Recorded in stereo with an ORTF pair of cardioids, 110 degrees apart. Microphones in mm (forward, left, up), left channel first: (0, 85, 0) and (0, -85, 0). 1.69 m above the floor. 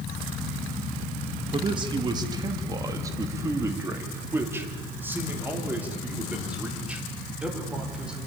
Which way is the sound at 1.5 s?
30° right.